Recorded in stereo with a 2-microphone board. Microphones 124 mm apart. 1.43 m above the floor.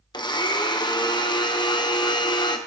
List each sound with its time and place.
0.1 s a blender: 35° left (ahead or behind), 0.9 m